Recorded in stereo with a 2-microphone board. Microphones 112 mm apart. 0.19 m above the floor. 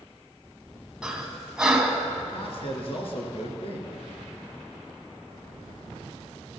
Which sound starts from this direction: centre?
Breathing, at 1.0 s.